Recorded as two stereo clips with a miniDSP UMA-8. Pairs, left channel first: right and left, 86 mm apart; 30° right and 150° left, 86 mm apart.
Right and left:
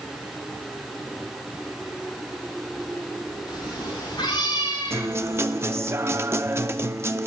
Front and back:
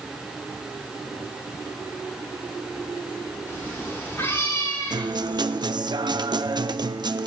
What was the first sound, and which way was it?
A cat meowing, 95° right.